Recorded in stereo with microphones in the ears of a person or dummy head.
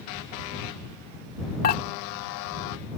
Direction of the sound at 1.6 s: 50° left (ahead or behind).